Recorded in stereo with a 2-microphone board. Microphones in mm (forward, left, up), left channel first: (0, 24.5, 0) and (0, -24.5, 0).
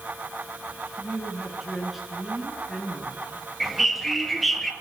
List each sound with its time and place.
1.0 s a woman speaking: 5° right (ahead or behind), 8 m
3.6 s a bird: centre (ahead or behind), 2.0 m